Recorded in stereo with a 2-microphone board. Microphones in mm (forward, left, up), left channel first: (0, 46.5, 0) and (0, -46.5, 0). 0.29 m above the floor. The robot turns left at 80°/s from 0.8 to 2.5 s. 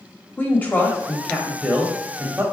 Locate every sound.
0.4 s a woman speaking: 20° left (ahead or behind), 1.0 m; by 2.4 s 30° right (ahead or behind), 1.0 m